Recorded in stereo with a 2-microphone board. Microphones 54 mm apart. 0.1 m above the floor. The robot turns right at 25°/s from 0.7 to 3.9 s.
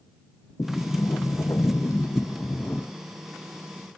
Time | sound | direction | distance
0.6 | a sliding door | 80° left | ?